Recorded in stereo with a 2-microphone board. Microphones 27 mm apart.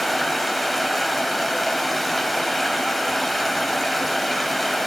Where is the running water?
5° left (ahead or behind), 1.0 m.